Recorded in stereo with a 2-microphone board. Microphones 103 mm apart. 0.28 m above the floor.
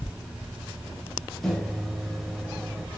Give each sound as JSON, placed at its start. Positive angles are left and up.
{"t": 1.4, "sound": "a microwave", "side_deg": 5, "distance_m": 0.7}